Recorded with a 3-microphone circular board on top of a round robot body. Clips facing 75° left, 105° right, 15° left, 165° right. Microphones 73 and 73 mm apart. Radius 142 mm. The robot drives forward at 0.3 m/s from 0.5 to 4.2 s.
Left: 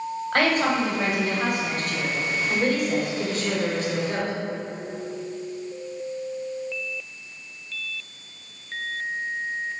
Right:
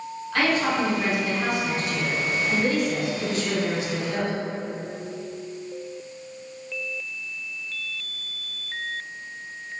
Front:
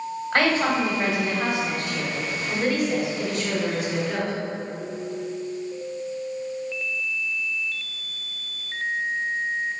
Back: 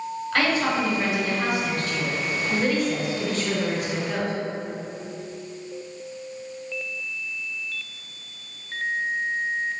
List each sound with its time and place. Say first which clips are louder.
0.3 s a woman speaking: left 1 dB, front 2 dB; 60° left, 1.8 m; by 4.3 s 110° left, 1.7 m